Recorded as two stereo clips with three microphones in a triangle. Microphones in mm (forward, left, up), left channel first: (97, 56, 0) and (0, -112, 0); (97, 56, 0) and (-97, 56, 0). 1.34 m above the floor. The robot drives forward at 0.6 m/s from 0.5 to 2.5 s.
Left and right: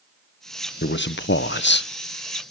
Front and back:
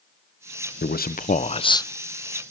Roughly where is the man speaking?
Ahead left.